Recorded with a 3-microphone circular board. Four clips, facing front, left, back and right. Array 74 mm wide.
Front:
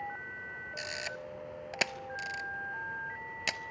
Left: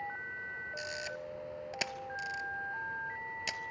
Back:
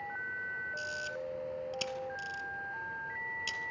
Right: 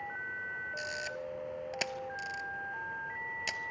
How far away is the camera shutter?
About 0.7 m.